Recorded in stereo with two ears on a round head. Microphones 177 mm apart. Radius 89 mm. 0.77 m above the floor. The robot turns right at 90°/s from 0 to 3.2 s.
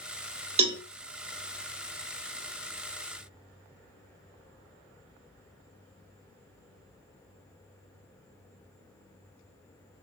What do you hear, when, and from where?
0.6 s a cowbell: 30° right (ahead or behind), 0.5 m; by 0.8 s 10° right (ahead or behind), 0.5 m